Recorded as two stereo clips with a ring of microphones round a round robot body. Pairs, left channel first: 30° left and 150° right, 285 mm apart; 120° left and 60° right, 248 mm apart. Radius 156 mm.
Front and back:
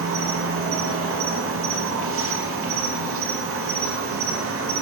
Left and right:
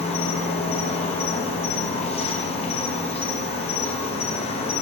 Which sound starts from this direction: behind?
An insect, at 0.0 s.